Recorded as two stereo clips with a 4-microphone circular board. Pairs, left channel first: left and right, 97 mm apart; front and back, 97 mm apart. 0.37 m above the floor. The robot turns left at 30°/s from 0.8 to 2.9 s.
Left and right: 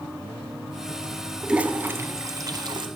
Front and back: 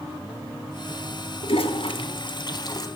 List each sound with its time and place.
1.4 s a toilet flushing: 10° right, 0.8 m; by 2.9 s 50° right, 0.8 m